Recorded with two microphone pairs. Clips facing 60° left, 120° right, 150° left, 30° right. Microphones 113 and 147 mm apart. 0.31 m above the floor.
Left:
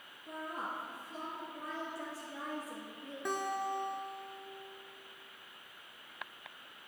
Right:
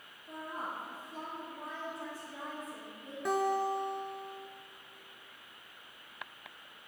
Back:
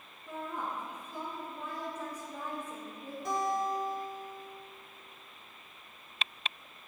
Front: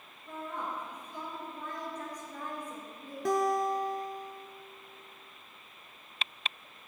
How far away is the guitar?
About 0.9 m.